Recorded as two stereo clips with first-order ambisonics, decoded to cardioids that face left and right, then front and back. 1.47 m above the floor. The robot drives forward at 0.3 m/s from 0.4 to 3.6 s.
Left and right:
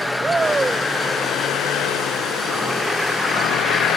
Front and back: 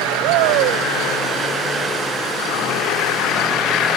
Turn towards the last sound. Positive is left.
turn(degrees=-165)